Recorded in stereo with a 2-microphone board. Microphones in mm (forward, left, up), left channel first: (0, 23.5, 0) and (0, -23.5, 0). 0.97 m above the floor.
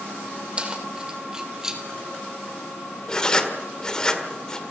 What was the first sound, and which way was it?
Keys jangling, 20° right (ahead or behind).